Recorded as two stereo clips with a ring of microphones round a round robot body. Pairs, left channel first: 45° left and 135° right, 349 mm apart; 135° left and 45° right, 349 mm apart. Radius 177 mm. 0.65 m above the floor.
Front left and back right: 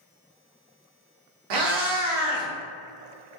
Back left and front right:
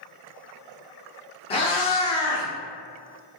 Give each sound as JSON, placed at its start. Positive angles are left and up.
{"t": 1.5, "sound": "a cat meowing", "azimuth_deg": -150, "distance_m": 0.7}